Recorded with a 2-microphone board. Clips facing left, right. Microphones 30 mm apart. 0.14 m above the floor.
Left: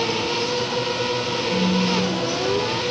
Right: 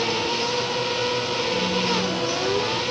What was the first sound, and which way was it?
A phone buzzing, 60° left (ahead or behind).